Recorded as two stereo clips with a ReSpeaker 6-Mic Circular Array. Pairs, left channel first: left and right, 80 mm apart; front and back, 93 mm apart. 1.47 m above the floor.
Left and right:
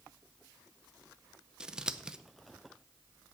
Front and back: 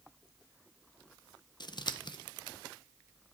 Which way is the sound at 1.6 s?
10° right.